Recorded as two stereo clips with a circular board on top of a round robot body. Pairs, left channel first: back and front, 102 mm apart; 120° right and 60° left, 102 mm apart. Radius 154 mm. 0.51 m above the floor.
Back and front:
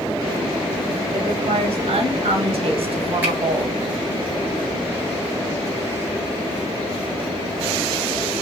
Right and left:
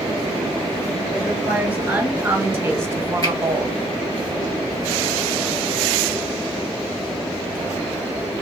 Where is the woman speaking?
20° right, 3 m; by 4.2 s 50° left, 1.0 m.